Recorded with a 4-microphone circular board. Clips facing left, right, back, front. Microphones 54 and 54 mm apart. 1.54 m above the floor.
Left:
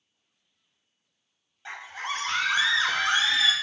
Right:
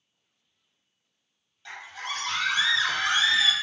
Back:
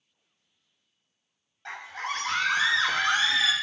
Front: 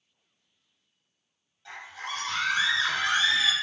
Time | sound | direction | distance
1.6 | a scream | 150° left | 1.5 m